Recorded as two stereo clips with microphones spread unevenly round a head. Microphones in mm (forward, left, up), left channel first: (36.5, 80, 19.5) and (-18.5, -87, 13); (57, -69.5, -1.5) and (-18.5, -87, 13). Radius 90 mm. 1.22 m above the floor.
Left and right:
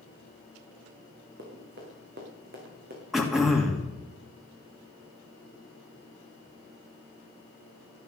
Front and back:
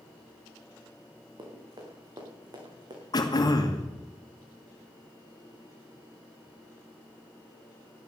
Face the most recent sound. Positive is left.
turn(degrees=-20)